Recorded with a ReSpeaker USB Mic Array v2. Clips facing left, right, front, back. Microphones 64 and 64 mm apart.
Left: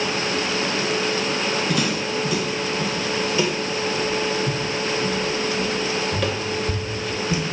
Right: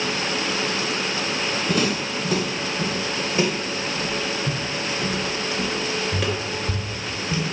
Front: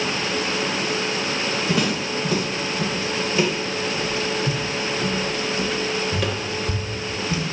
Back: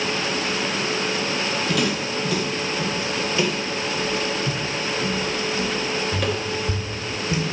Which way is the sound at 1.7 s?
50° right.